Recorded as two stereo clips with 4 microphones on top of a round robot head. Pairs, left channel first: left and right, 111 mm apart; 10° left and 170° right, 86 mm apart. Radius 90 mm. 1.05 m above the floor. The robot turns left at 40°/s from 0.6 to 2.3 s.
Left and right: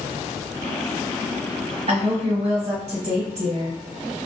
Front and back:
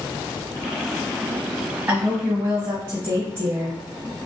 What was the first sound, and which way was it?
A woman speaking, 110° right.